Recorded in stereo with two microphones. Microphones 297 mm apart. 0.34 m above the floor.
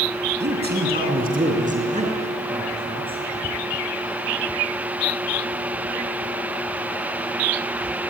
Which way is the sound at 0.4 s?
35° right (ahead or behind).